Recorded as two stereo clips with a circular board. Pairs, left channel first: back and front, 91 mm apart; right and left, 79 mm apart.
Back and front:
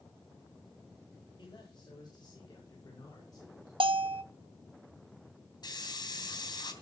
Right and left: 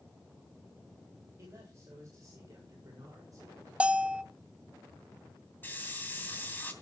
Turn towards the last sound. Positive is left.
turn(degrees=-150)